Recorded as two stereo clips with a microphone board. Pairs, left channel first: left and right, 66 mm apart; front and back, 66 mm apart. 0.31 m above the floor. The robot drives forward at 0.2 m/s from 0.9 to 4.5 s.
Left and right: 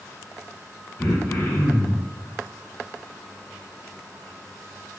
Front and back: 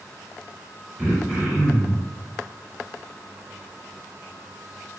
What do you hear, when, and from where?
1.0 s throat clearing: 100° left, 0.9 m; by 2.0 s 125° left, 0.9 m